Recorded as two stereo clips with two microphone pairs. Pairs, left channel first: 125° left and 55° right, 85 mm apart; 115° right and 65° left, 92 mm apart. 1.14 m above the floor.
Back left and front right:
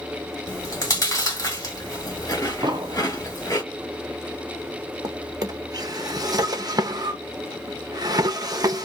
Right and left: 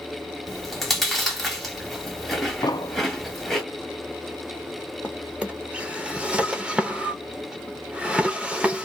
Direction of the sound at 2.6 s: 75° right.